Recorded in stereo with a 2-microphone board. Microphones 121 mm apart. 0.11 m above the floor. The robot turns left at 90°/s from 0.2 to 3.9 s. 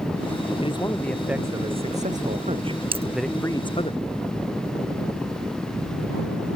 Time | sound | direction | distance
0.6 | a man speaking | 55° left | ?
2.9 | a dropped coin | 50° right (ahead or behind) | ?